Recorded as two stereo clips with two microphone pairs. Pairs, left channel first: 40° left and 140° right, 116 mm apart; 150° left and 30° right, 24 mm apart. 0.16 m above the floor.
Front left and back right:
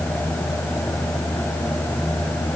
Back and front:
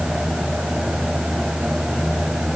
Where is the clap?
No clap in this recording.